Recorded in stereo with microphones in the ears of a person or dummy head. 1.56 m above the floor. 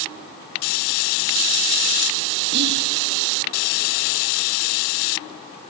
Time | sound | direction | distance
2.5 | whispering | 60° right (ahead or behind) | 1.1 m